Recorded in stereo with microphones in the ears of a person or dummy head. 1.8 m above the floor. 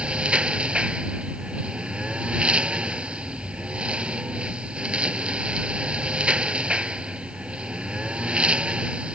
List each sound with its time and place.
0.0 s a lawn mower: centre (ahead or behind)